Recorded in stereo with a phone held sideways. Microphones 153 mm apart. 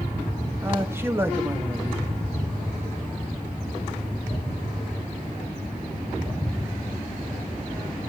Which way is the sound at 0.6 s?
15° right (ahead or behind).